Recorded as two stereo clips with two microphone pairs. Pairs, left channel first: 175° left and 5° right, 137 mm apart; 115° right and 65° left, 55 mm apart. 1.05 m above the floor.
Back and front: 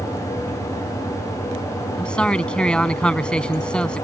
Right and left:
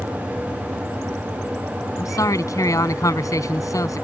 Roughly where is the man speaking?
Right.